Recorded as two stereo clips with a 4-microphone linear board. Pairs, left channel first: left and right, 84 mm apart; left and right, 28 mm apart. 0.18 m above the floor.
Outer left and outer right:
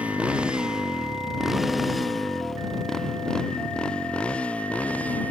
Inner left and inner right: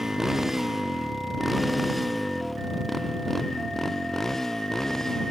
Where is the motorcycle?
15° right (ahead or behind); by 5.3 s 20° left (ahead or behind).